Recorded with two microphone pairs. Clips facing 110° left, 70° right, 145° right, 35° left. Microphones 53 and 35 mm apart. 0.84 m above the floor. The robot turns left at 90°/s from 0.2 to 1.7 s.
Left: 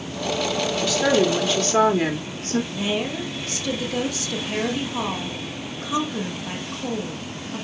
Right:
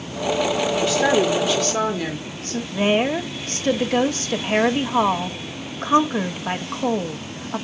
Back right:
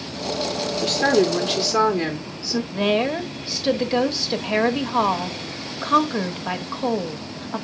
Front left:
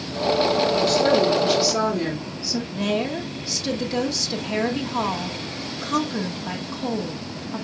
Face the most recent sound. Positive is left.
turn(degrees=-90)